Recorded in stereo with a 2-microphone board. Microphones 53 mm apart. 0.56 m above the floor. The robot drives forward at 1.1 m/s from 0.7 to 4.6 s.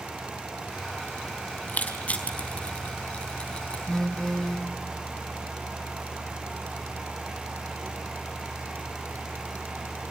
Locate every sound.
1.7 s crushing: 35° left (ahead or behind), 3.5 m; by 3.8 s 20° left (ahead or behind), 5.5 m
3.9 s a phone buzzing: 5° left (ahead or behind), 0.9 m